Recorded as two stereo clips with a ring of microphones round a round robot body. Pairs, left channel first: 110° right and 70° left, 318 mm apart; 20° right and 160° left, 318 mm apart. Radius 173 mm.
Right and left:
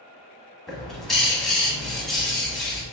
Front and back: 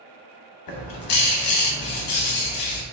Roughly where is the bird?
Ahead right.